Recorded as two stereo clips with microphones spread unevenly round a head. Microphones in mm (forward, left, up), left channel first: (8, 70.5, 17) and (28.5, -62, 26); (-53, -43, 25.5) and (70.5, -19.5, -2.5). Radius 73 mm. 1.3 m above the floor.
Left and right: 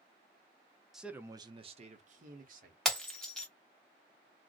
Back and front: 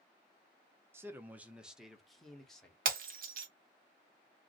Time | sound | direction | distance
0.9 | a man speaking | 15° left | 0.6 m
2.9 | breaking glass | 10° left | 0.7 m